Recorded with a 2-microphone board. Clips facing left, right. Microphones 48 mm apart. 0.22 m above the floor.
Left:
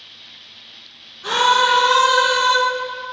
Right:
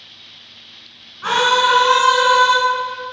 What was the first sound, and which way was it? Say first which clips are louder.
A scream: right 1 dB; 55° right (ahead or behind).